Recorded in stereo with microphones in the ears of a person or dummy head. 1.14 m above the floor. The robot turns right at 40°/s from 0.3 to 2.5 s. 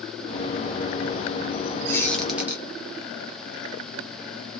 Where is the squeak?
20° left (ahead or behind), 0.6 m; by 2.6 s 10° right (ahead or behind), 0.6 m.